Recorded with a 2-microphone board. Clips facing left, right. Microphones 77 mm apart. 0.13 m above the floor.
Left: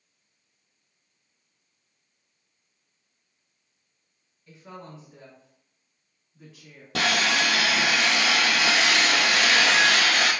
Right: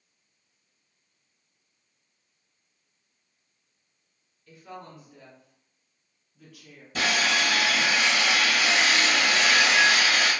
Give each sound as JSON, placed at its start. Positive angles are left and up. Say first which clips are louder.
{"t": 4.5, "sound": "a woman speaking", "louder": "even", "side_deg": 20, "distance_m": 1.2}
{"t": 7.0, "sound": "sawing", "louder": "left 1 dB", "side_deg": 80, "distance_m": 0.8}